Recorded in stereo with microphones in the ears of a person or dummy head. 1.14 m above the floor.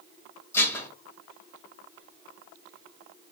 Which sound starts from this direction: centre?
Dishes clattering, at 0.5 s.